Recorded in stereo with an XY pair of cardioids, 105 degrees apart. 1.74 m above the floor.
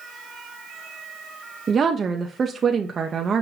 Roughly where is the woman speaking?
Ahead right.